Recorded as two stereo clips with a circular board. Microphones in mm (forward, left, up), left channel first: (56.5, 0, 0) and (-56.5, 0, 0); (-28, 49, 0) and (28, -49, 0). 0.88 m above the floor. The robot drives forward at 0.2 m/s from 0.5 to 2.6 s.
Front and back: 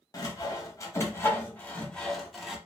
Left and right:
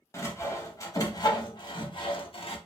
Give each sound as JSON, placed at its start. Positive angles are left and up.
{"t": 0.1, "sound": "sawing", "azimuth_deg": 55, "distance_m": 0.7}